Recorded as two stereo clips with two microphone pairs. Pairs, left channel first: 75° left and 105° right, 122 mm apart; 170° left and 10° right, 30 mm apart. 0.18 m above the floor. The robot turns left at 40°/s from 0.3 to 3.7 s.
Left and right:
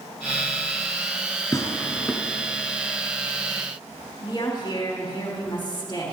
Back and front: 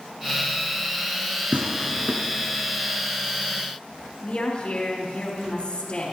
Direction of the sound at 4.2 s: 125° left.